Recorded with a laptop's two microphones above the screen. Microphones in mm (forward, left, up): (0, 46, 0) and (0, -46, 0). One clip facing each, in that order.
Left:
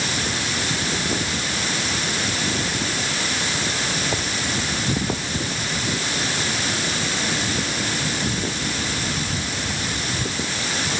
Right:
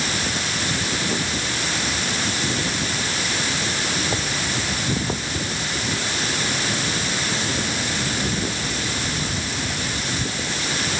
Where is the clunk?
No clunk in this recording.